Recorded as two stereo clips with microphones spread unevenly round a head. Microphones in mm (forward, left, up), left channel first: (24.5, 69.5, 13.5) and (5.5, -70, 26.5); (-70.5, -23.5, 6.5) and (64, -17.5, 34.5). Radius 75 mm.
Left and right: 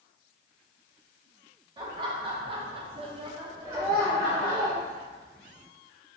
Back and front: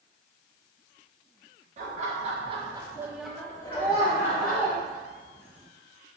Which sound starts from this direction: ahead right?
Laughter, at 1.8 s.